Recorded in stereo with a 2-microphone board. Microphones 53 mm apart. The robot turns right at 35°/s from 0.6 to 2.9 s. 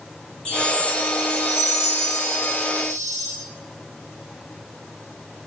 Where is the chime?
20° left, 5 m; by 3.3 s 100° left, 5 m.